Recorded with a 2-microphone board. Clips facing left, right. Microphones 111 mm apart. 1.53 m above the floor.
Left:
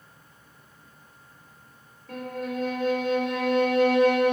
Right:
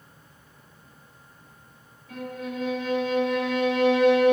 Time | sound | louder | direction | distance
2.1 | a violin | left 2 dB | 60° left (ahead or behind) | 2.5 m